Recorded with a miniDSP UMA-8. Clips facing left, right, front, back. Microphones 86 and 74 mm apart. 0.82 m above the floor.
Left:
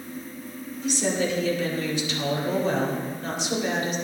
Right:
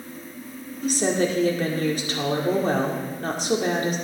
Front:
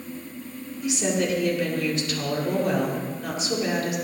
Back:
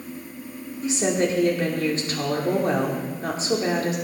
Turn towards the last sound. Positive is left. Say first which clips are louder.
# right 3 dB, back 2 dB
turn(degrees=-130)